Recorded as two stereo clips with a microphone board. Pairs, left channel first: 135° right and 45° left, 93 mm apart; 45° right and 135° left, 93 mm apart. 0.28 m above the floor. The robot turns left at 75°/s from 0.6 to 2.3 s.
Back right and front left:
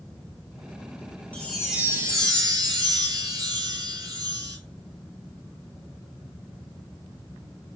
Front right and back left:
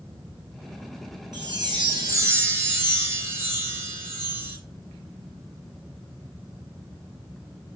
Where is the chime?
155° left, 1.8 m; by 4.6 s 80° left, 1.8 m.